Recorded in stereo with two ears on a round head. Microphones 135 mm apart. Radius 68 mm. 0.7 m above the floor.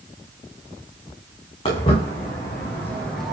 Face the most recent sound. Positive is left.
turn(degrees=0)  # may be behind; listen again after turning